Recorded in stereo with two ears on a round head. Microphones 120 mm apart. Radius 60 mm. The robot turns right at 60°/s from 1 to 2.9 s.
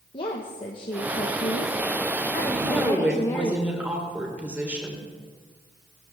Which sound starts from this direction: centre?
A woman speaking, at 2.5 s.